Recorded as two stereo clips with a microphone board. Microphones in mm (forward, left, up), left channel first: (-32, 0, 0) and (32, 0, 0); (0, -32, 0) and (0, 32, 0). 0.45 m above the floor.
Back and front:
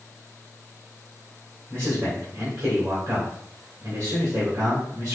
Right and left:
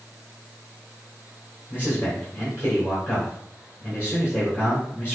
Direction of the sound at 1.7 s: 35° right.